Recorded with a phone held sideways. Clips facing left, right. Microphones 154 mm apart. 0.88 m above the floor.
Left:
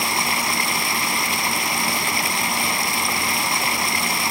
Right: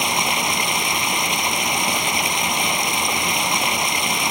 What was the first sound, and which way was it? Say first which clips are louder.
Running water: right 2 dB; 20° right (ahead or behind).